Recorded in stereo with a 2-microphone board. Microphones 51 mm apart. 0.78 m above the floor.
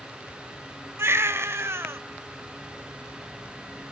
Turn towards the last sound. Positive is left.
turn(degrees=-55)  # may be behind; listen again after turning